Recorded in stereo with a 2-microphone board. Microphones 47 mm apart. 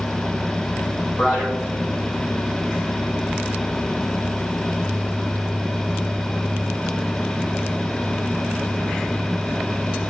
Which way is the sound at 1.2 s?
20° right (ahead or behind).